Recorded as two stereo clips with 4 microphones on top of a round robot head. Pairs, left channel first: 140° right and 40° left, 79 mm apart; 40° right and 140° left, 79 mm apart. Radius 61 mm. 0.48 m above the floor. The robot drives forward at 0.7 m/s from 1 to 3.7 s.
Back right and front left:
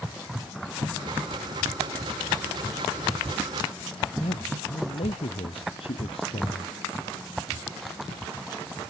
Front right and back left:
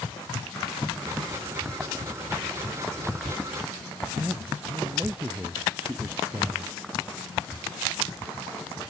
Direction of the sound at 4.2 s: 145° right.